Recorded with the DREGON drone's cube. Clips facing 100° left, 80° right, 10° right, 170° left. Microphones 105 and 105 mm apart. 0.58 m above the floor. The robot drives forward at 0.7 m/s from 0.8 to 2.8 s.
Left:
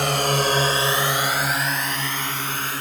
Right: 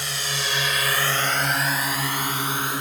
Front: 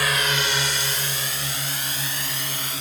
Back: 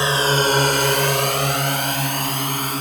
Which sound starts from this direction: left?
A drone, at 0.0 s.